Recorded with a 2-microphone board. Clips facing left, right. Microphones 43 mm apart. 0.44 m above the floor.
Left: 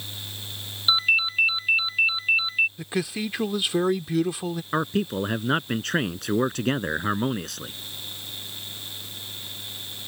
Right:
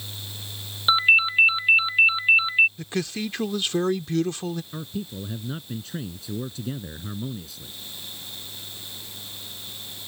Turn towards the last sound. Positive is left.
turn(degrees=75)  # may be behind; listen again after turning